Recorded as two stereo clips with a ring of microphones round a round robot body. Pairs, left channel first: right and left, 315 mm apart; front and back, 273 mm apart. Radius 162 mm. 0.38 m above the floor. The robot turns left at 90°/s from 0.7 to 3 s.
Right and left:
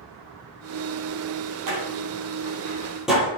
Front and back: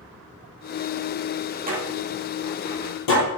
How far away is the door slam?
About 7 m.